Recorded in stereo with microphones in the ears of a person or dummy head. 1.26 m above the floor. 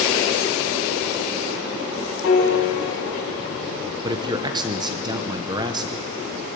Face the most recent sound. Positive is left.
turn(degrees=-20)  # may be behind; listen again after turning